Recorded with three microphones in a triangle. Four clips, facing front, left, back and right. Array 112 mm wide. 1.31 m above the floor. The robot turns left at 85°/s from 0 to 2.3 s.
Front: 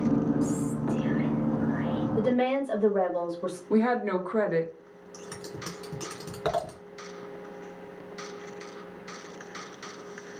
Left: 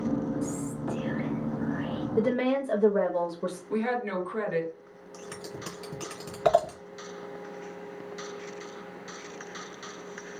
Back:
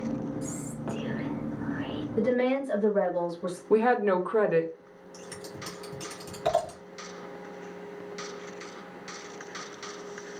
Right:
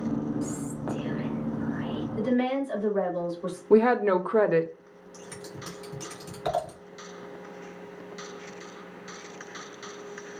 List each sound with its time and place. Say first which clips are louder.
0.4 s whispering: even, front 7 dB; 60° right, 1.4 m; by 2.1 s 160° left, 1.4 m
2.2 s a woman speaking: left 1 dB, back 1 dB; 85° left, 1.8 m; by 3.6 s 70° left, 1.8 m
3.7 s a woman speaking: right 11 dB, back 3 dB; 110° right, 0.8 m
5.1 s scissors: left 2 dB, front 2 dB; 60° left, 2 m